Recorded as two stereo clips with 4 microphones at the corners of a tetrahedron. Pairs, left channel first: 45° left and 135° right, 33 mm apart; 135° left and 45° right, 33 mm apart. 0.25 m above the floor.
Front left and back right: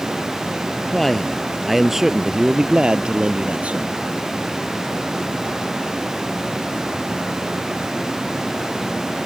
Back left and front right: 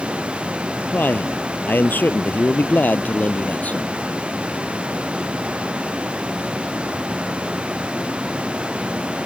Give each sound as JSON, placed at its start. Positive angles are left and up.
{"t": 0.9, "sound": "a man speaking", "azimuth_deg": 120}